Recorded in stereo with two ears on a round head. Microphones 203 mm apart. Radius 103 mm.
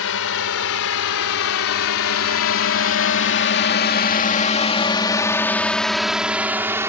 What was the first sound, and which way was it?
A drone, 65° left (ahead or behind).